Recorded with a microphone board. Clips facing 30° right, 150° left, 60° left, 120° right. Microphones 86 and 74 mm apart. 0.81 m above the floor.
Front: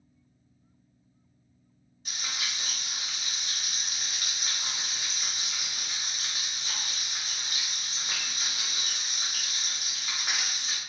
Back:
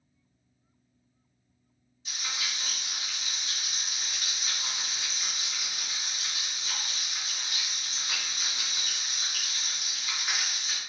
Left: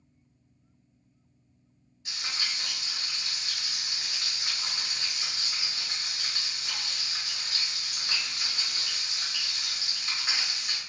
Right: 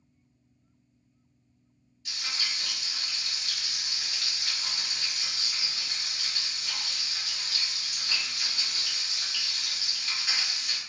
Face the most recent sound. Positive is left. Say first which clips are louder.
# even, left 1 dB
turn(degrees=0)